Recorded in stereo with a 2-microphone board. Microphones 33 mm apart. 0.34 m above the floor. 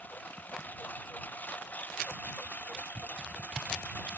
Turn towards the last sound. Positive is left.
turn(degrees=65)  # may be behind; listen again after turning